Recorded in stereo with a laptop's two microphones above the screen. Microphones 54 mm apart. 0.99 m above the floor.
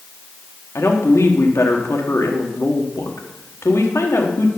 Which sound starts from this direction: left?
A woman speaking, at 0.8 s.